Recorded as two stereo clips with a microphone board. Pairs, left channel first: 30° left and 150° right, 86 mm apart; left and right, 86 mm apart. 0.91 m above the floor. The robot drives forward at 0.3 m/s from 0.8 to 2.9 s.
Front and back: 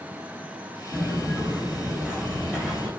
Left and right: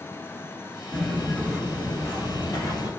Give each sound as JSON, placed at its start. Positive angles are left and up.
{"t": 0.9, "sound": "footsteps", "azimuth_deg": 175, "distance_m": 0.9}